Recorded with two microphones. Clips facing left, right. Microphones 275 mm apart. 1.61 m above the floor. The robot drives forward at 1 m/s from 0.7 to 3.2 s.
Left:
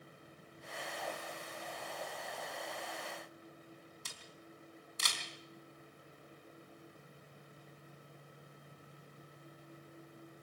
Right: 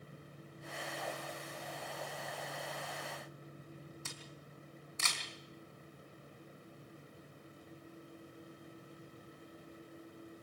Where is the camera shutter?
40° left (ahead or behind), 4 m.